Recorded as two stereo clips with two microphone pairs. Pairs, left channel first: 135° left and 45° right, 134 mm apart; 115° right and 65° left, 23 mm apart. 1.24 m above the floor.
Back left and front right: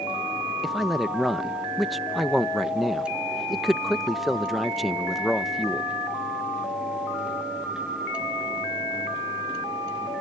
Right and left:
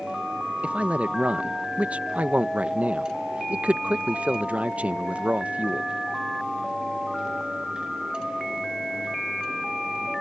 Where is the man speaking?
40° left.